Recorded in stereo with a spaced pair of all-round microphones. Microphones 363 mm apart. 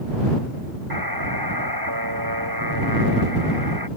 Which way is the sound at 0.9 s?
85° right.